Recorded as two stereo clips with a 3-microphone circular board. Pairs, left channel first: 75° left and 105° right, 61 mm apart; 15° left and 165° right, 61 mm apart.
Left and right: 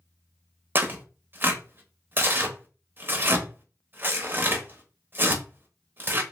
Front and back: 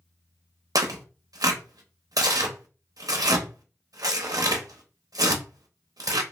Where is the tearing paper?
160° right, 0.6 m.